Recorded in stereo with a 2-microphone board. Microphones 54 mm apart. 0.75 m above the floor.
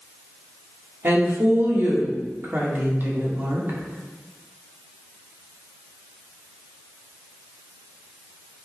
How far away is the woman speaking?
About 2 m.